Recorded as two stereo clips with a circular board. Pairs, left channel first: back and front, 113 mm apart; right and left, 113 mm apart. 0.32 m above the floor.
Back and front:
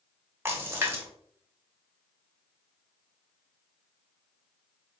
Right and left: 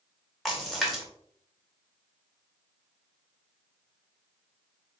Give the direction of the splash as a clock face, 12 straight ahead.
12 o'clock.